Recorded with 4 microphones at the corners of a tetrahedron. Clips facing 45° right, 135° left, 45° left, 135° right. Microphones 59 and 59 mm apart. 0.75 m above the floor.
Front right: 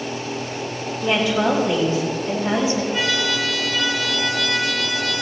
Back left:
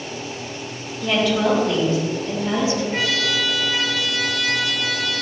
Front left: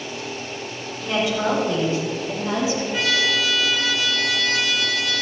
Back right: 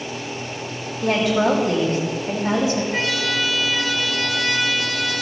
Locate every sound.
1.0 s a woman speaking: 130° right, 4 m; by 2.8 s 115° right, 3 m
2.9 s a trumpet: 175° left, 3 m